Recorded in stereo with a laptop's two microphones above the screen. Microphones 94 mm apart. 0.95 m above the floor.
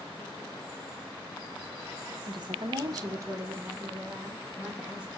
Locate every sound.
2.3 s a woman speaking: 50° right (ahead or behind), 0.6 m; by 5.2 s 10° right (ahead or behind), 1.7 m